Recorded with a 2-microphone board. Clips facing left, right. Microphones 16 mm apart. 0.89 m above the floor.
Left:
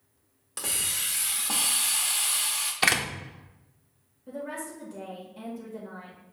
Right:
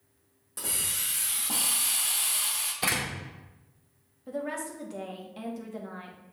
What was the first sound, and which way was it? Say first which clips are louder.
A hiss: left 2 dB; 35° left (ahead or behind).